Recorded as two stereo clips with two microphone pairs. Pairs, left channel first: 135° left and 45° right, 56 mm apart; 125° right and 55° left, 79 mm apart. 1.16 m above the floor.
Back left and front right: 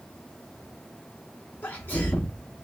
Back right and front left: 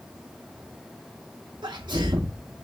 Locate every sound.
1.6 s a sneeze: 85° left, 0.6 m